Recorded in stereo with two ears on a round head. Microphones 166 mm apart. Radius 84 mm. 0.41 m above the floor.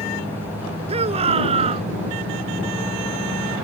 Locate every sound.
0.9 s a shout: 35° right (ahead or behind)